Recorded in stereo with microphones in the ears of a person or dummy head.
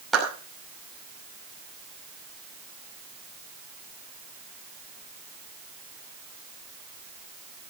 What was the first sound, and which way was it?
A clap, centre (ahead or behind).